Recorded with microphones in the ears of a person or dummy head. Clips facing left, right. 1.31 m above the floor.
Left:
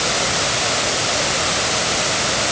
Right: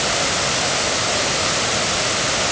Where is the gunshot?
I don't hear a gunshot.